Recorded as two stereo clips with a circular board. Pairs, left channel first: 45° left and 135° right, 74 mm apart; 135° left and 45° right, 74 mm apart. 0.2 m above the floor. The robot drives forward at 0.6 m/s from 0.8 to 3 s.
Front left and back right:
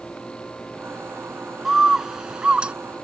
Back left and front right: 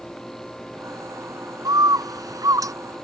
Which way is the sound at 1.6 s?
50° right.